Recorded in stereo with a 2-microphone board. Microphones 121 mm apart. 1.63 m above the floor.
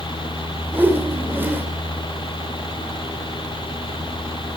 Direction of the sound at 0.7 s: 15° right (ahead or behind).